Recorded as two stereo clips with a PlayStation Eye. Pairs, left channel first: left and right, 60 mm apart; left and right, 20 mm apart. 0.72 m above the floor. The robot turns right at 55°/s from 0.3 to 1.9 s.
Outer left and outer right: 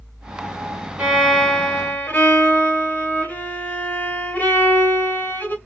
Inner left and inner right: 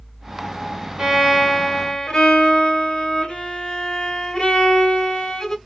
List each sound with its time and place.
1.0 s a violin: 15° right, 2.0 m; by 5.5 s 35° left, 2.0 m